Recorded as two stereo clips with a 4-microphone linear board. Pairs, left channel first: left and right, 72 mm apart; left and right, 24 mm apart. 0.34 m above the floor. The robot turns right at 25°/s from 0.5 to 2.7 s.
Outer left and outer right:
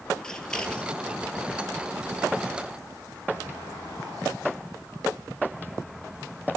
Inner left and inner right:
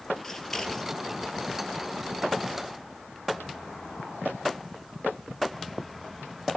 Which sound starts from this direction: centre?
Scissors, at 0.2 s.